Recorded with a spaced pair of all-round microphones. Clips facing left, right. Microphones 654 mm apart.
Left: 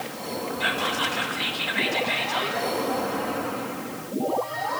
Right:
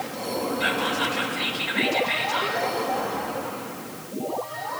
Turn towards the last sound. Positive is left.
turn(degrees=5)  # may be behind; listen again after turning